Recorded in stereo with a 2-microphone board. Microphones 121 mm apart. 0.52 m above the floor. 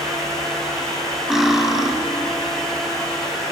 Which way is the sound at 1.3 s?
5° right (ahead or behind).